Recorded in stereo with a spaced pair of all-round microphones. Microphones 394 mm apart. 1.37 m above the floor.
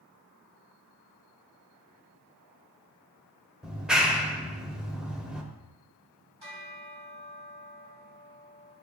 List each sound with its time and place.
3.6 s a clap: centre (ahead or behind), 0.8 m
6.4 s a bell: 75° right (ahead or behind), 3 m